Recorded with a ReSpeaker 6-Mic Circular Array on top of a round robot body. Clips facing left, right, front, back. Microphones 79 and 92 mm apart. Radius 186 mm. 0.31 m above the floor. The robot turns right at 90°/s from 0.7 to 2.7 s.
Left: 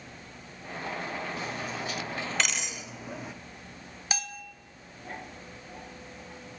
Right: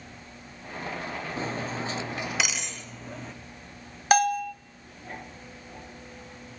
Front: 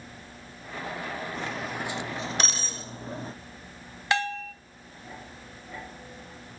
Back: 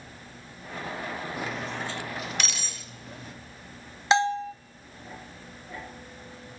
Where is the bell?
115° right, 0.7 m.